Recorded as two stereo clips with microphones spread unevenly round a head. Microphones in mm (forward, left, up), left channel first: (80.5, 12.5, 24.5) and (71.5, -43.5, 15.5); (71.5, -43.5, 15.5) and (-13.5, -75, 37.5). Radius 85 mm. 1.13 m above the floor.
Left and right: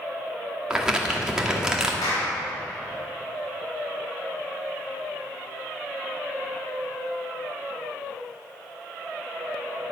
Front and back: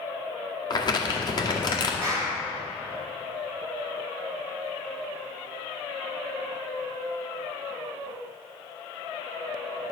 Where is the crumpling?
20° right, 1.9 m.